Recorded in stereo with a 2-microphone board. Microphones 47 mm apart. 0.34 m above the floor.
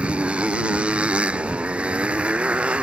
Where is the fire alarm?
No fire alarm in this recording.